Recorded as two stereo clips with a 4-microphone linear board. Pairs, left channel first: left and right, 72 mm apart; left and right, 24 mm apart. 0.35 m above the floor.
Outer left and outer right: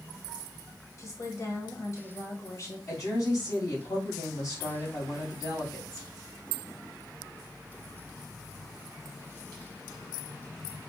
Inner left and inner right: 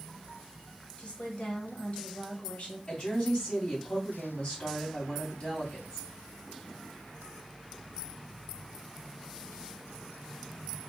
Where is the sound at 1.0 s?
45° left (ahead or behind), 1.4 m.